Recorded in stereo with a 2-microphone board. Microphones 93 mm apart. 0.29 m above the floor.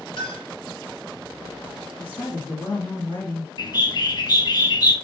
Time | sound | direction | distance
0.2 | a clink | 55° left (ahead or behind) | 4 m
2.0 | a woman speaking | 20° left (ahead or behind) | 2.5 m
3.6 | a bird | 50° left (ahead or behind) | 2.5 m